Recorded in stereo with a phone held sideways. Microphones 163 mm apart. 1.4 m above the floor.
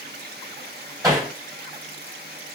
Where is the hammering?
20° right (ahead or behind), 2.5 m.